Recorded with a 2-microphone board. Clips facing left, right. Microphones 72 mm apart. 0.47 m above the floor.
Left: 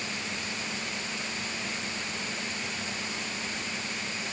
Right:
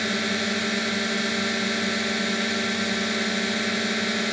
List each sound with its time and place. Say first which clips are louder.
0.0 s a drone: right 10 dB; 70° right (ahead or behind)